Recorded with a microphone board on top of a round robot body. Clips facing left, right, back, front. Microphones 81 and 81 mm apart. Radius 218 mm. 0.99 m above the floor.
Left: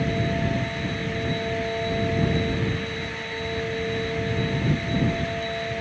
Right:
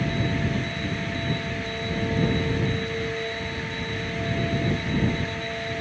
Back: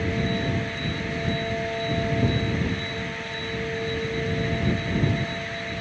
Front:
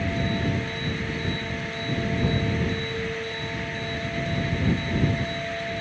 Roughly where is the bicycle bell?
I don't hear a bicycle bell.